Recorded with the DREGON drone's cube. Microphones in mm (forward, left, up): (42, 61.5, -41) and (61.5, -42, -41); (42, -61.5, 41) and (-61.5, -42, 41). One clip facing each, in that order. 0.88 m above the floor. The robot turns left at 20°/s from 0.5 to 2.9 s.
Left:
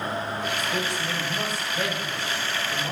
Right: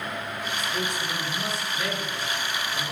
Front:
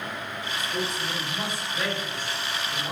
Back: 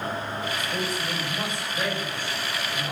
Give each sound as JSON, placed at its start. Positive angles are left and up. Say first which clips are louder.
{"t": 0.6, "sound": "a man speaking", "louder": "left 2 dB, back 1 dB", "azimuth_deg": 120, "distance_m": 4.5}